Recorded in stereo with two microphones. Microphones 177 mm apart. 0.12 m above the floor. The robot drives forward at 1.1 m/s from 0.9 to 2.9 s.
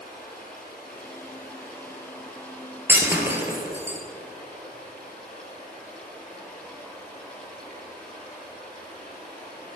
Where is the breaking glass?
15° right (ahead or behind), 1.6 m.